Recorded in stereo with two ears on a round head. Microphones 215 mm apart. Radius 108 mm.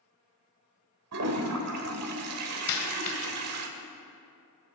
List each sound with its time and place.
1.1 s a toilet flushing: 75° right (ahead or behind), 1.7 m
2.7 s a dropped coin: 80° left, 1.5 m